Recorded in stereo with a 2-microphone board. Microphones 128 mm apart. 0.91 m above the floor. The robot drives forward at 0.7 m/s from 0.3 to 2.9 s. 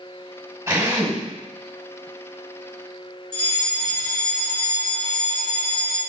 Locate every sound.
0.7 s a drill: 25° right (ahead or behind), 4 m
3.3 s a fire alarm: 40° right (ahead or behind), 3 m